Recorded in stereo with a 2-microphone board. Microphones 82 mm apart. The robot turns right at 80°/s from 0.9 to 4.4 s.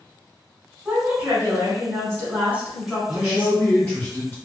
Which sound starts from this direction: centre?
A man speaking, at 3.1 s.